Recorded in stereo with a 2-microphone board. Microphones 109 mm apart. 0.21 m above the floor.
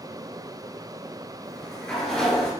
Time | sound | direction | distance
1.4 | a sliding door | 5° left (ahead or behind) | 3 m